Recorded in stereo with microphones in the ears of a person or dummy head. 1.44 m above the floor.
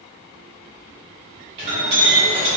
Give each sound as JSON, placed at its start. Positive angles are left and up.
{"t": 1.6, "sound": "a clink", "side_deg": -35, "distance_m": 1.7}